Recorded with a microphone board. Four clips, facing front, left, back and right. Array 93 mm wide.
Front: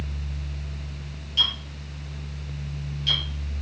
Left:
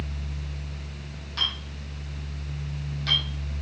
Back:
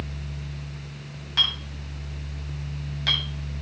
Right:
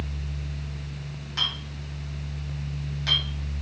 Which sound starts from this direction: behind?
A clink, at 1.4 s.